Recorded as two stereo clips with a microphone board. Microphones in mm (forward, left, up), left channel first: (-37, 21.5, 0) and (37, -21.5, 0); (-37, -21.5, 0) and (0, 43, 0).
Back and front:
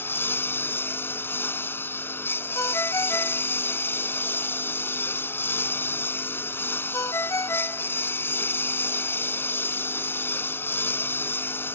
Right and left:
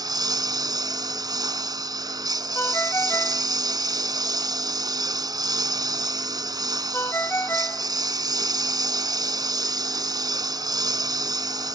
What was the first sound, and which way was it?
A lawn mower, 85° left.